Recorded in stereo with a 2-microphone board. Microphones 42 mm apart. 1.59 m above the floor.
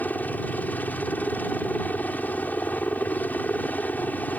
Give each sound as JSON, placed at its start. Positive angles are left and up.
{"t": 0.0, "sound": "a helicopter", "side_deg": 40}